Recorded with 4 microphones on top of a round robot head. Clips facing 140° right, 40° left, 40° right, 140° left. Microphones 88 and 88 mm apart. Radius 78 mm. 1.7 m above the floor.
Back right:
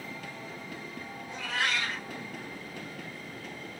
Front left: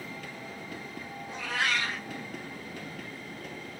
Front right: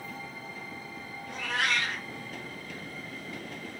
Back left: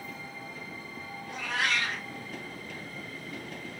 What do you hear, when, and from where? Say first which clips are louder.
1.3 s a cat meowing: front left 1 dB, even; 60° left, 0.9 m